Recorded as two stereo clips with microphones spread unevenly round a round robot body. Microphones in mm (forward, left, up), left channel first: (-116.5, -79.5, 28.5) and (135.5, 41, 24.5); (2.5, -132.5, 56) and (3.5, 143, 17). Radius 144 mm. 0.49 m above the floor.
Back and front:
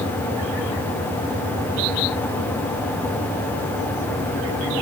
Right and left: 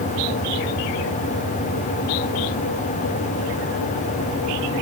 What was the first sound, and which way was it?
Only background noise.